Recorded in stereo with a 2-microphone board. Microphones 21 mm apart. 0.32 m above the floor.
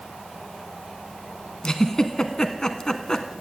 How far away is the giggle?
About 0.6 m.